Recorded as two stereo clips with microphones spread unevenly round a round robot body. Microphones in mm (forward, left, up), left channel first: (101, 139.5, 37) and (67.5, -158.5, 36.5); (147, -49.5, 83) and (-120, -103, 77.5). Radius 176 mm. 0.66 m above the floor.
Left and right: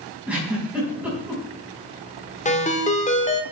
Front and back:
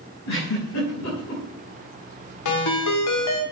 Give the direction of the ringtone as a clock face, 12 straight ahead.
11 o'clock.